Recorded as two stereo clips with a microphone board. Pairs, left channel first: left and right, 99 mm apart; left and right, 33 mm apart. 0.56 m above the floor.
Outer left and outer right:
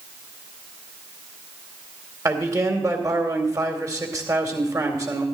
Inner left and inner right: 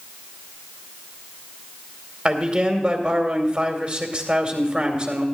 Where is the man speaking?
35° right (ahead or behind), 2 m.